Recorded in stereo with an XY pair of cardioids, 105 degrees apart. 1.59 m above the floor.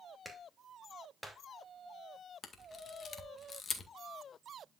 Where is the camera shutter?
40° left, 1.9 m.